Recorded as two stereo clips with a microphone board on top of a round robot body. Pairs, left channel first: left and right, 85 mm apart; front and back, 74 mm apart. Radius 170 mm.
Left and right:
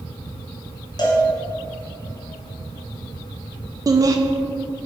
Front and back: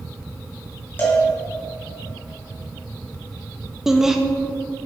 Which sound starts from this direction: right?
Laughter, at 3.9 s.